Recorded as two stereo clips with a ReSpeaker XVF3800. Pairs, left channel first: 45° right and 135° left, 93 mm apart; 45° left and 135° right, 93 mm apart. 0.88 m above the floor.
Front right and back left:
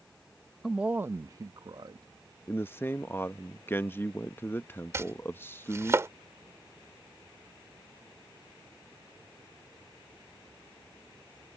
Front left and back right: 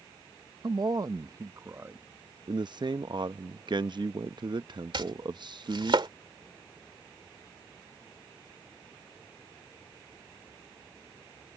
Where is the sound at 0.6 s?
135° right; by 2.1 s 165° left.